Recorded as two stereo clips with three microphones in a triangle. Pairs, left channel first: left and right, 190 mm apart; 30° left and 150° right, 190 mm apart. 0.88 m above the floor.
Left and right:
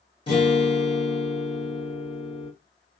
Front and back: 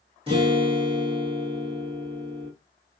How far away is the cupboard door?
I don't hear a cupboard door.